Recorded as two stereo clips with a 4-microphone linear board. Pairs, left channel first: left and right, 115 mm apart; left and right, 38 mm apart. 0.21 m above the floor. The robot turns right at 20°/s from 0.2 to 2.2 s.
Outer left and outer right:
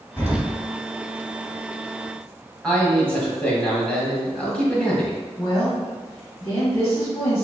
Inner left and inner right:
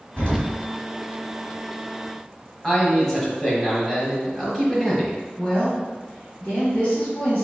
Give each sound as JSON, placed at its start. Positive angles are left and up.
{"t": 0.2, "sound": "an explosion", "side_deg": 25, "distance_m": 1.8}
{"t": 2.6, "sound": "a man speaking", "side_deg": 10, "distance_m": 1.2}
{"t": 5.4, "sound": "a woman speaking", "side_deg": 25, "distance_m": 1.2}